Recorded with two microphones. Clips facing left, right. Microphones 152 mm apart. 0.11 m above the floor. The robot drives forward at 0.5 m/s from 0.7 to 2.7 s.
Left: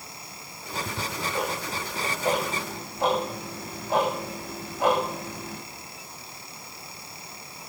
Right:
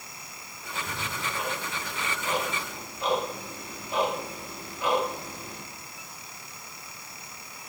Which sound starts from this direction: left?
Ticking, at 0.7 s.